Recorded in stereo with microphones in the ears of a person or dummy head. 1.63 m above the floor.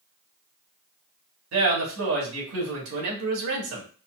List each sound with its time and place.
1.5 s a man speaking: 80° right, 1.5 m